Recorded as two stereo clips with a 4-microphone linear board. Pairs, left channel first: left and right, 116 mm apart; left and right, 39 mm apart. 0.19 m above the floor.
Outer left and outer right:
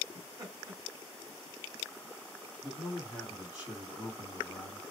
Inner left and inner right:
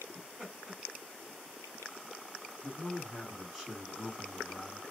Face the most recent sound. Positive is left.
turn(degrees=-5)  # may be behind; listen again after turning